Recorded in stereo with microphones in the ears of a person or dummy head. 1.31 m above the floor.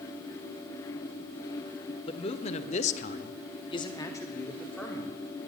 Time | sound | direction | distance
2.1 | a man speaking | 30° left (ahead or behind) | 1.0 m